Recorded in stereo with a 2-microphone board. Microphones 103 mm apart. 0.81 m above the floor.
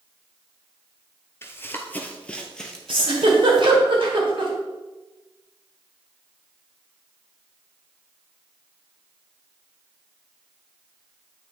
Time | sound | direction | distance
1.4 | running footsteps | 25° left (ahead or behind) | 0.8 m
2.9 | a giggle | 60° right (ahead or behind) | 1.7 m